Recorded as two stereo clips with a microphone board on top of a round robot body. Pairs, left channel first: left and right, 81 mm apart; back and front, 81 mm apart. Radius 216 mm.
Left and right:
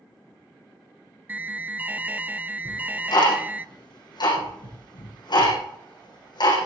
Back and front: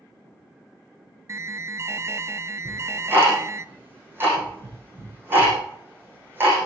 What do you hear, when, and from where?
1.3 s an alarm: 30° right, 1.1 m
2.6 s ticking: 65° left, 9.5 m